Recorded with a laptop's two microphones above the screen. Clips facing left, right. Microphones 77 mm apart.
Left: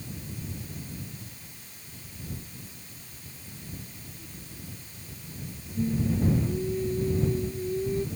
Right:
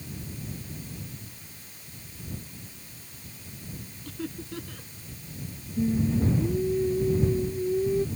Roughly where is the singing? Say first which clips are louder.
Right 2 dB; centre.